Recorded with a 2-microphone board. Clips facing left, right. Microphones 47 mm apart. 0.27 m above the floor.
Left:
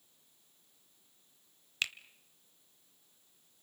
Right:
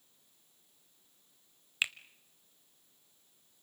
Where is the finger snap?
15° right (ahead or behind), 0.9 m.